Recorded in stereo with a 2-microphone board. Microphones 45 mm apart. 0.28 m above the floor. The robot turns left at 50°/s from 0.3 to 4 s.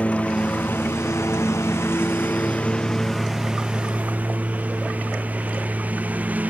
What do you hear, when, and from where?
0.0 s a lawn mower: 150° left; by 6.5 s 35° right